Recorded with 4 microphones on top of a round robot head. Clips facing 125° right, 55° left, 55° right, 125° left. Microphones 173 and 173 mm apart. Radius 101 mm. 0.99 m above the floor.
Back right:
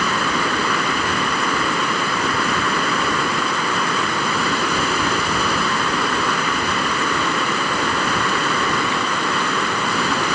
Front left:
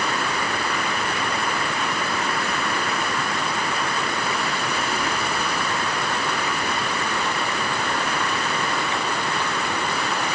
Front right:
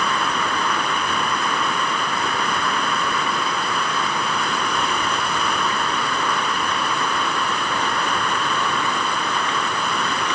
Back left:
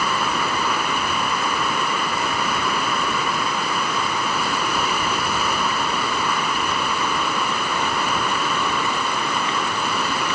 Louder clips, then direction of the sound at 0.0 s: Back right 4 dB, even; 150° right.